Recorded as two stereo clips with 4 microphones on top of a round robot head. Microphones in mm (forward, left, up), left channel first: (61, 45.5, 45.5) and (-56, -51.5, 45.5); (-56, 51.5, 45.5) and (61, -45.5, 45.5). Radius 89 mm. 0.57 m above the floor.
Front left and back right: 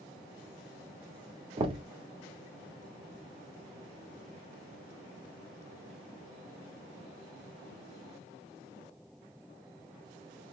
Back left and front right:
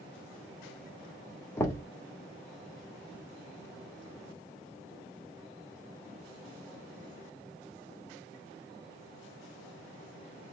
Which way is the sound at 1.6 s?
160° right.